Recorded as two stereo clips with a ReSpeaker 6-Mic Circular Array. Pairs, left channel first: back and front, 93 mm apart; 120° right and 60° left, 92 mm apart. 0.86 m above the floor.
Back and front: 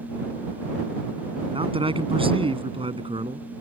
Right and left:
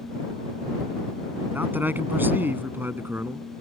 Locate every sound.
1.5 s a man speaking: 10° right; by 3.5 s 5° right